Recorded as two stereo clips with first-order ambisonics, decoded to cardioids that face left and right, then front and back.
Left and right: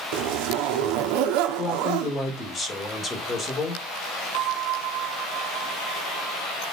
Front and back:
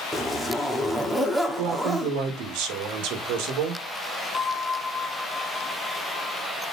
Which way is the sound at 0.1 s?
90° right.